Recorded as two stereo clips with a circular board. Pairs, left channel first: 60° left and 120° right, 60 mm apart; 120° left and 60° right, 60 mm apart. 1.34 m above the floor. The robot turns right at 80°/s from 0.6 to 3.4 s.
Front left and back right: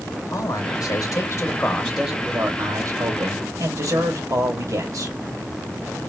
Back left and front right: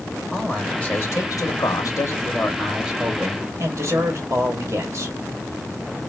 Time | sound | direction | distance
0.3 | a man speaking | 35° left | 2 m